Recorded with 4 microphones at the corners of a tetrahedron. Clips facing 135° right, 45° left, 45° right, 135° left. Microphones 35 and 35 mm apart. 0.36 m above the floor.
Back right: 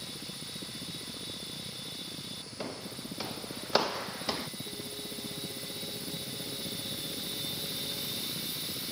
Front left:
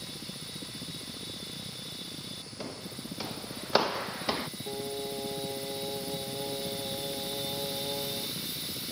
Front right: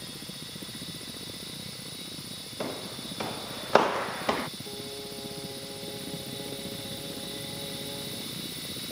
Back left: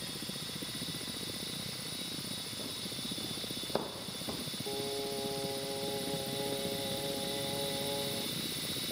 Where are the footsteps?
55° right; by 4.5 s 25° right.